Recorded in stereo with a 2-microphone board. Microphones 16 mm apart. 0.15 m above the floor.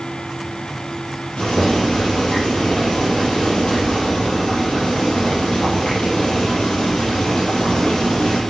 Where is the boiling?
70° left (ahead or behind), 4.5 m.